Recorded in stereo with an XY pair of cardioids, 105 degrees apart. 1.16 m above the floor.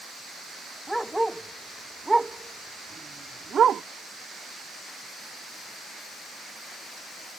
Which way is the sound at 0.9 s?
Straight ahead.